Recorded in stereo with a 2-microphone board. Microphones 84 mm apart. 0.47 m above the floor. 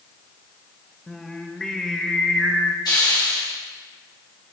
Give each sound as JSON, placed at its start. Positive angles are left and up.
{"t": 1.1, "sound": "singing", "side_deg": 5, "distance_m": 0.8}
{"t": 2.9, "sound": "a hiss", "side_deg": 65, "distance_m": 3.5}